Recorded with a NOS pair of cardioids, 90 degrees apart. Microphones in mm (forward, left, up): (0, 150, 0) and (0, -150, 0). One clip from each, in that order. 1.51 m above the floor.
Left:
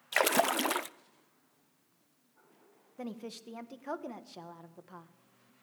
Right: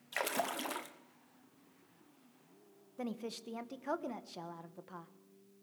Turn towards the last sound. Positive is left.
turn(degrees=-5)